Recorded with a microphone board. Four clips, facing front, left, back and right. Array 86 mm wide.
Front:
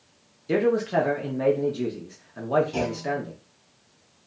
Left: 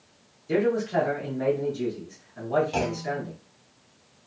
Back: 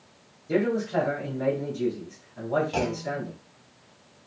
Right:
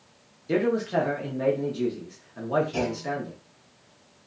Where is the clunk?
130° left, 0.9 m.